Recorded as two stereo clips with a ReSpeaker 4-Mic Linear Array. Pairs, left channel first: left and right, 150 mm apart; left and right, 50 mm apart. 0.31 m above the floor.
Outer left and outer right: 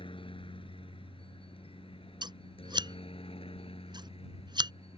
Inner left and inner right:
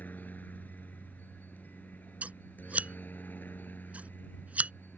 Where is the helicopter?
35° left (ahead or behind); by 5.0 s 40° left (ahead or behind).